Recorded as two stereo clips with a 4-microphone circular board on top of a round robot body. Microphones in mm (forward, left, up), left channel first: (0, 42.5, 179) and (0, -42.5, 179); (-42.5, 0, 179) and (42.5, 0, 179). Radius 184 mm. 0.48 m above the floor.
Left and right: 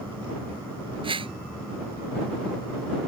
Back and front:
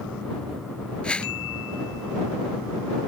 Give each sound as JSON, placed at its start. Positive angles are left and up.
{"t": 1.0, "sound": "a whoosh", "azimuth_deg": -100}